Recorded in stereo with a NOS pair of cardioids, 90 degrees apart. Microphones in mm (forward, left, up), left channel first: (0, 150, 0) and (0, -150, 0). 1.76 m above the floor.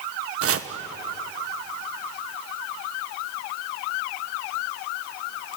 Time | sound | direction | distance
0.4 | chopping | 50° right | 1.4 m